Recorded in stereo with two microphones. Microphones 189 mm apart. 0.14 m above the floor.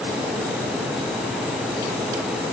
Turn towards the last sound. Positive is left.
No sound to turn to.